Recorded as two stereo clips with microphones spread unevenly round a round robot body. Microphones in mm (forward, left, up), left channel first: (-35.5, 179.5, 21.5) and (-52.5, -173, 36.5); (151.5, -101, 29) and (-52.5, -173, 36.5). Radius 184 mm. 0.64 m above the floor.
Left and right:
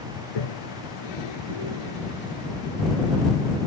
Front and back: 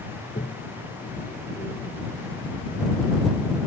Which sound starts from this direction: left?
A toilet flushing, at 0.2 s.